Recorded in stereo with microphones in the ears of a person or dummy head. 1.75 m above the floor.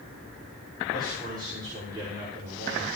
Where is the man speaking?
25° right (ahead or behind), 6 m.